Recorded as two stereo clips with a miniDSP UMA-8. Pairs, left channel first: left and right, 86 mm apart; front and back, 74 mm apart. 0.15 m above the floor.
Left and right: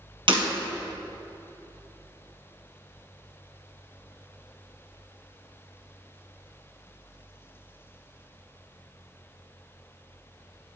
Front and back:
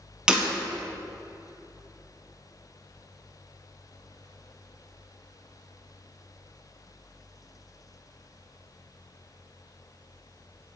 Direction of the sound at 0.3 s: 100° right.